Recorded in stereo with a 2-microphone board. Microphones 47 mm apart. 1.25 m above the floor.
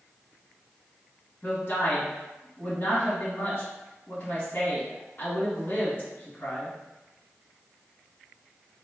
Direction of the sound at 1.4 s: 45° left (ahead or behind).